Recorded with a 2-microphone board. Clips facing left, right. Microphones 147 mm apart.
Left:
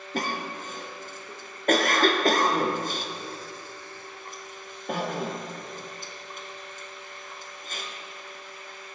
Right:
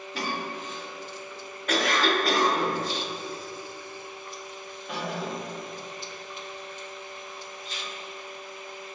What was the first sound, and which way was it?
A cough, 45° left (ahead or behind).